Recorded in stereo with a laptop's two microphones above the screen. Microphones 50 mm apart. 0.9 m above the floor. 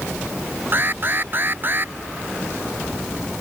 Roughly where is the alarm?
Right.